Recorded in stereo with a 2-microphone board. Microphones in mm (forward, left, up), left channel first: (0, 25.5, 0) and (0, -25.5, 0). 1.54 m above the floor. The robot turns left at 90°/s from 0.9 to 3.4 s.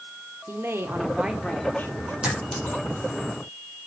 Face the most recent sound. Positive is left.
turn(degrees=80)